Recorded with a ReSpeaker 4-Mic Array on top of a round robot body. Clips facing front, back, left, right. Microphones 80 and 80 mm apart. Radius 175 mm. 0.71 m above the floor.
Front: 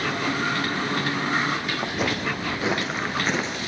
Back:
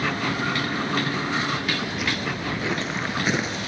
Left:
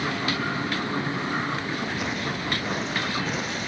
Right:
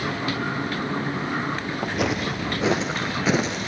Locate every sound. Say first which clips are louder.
1.8 s footsteps: front 1 dB, right 4 dB; 55° right, 1.2 m; by 3.6 s 110° right, 0.9 m